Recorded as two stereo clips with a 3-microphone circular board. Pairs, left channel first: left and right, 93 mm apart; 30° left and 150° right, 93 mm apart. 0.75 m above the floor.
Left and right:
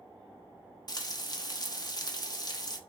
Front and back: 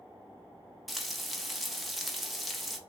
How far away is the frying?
About 0.8 m.